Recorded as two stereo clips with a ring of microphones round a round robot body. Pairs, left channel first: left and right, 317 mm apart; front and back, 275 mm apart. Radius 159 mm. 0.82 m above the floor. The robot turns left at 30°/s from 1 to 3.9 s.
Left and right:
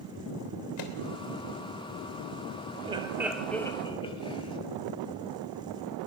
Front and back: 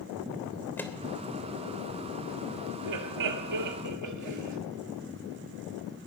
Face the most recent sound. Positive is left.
turn(degrees=165)